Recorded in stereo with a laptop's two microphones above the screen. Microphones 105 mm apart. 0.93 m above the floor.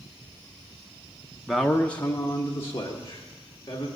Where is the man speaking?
Centre (ahead or behind), 0.6 m; by 3.9 s 35° left (ahead or behind), 1.9 m.